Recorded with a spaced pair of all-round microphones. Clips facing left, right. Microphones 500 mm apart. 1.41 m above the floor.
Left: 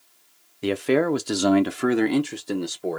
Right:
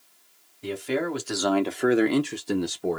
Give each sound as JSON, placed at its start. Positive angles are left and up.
{"t": 0.6, "sound": "a man speaking", "side_deg": 85, "distance_m": 0.8}